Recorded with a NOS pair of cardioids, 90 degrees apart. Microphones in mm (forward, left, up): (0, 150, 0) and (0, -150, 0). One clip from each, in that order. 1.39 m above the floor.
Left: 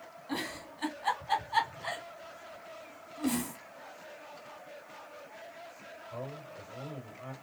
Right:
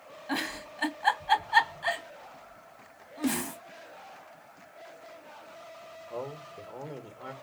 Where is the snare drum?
45° right, 1.5 m.